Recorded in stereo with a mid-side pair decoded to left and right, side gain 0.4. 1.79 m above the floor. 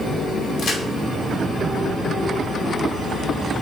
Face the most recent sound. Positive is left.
turn(degrees=65)